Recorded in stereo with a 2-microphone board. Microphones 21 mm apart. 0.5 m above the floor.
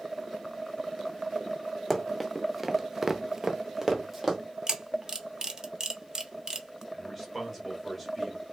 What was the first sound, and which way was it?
Running footsteps, 5° right (ahead or behind).